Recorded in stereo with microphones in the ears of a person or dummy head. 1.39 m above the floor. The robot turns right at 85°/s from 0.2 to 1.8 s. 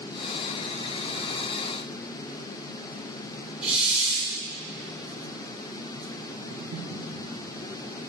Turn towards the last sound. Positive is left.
turn(degrees=-55)  # may be behind; listen again after turning